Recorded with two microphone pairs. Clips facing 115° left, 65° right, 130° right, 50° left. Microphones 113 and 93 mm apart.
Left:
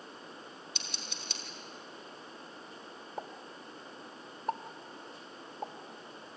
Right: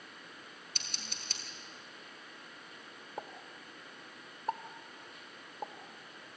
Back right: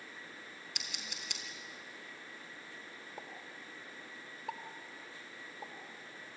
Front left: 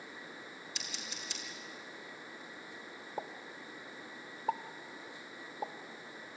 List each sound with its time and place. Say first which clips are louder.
0.8 s scissors: left 3 dB, even; 105° right, 4.5 m
3.2 s a pop: left 2 dB, front left 8 dB; 20° left, 1.0 m